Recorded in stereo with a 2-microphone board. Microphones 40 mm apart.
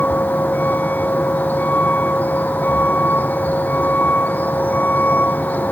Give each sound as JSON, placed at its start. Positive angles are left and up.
{"t": 0.0, "sound": "a vehicle", "side_deg": 45}